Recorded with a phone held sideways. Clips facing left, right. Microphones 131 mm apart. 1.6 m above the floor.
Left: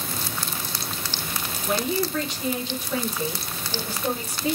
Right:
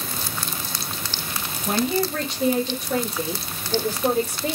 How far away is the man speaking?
About 2 m.